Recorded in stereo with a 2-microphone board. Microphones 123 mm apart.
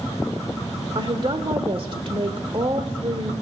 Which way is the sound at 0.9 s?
45° right (ahead or behind).